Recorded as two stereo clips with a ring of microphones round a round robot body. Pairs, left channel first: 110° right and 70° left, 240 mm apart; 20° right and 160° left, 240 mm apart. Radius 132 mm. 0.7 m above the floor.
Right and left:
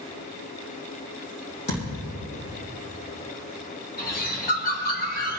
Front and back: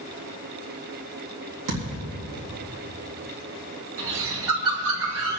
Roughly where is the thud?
Behind.